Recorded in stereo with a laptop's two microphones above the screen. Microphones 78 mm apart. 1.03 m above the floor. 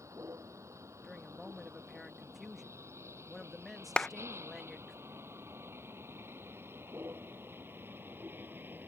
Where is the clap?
10° left (ahead or behind).